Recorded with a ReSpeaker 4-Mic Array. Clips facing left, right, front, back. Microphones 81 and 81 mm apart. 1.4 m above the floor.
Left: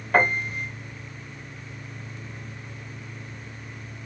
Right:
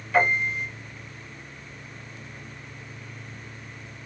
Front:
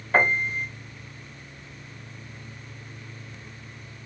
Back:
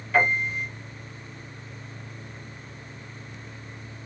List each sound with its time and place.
0.1 s a piano: 50° left, 0.8 m